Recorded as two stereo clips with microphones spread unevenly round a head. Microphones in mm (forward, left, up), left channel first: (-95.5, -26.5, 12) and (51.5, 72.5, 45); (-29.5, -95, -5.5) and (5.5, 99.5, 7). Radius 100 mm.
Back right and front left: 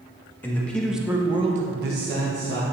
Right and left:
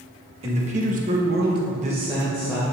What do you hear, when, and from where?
0.4 s a man speaking: 140° left, 1.7 m; by 2.6 s 5° right, 1.5 m